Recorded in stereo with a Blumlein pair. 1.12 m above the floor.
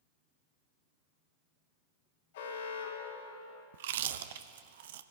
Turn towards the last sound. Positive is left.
turn(degrees=-55)